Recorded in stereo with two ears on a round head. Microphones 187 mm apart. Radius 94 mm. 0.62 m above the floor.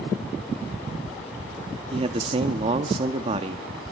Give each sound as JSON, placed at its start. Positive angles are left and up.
{"t": 1.9, "sound": "a man speaking", "side_deg": -30, "distance_m": 0.9}